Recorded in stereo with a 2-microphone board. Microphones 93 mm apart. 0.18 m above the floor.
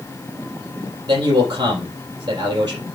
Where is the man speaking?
45° right (ahead or behind), 5 m.